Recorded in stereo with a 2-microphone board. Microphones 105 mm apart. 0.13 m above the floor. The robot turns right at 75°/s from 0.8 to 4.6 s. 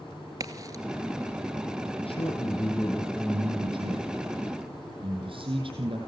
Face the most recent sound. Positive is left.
turn(degrees=-60)